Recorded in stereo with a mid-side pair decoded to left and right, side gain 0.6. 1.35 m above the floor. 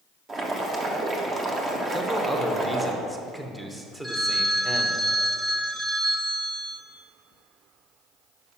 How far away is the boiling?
About 1.2 m.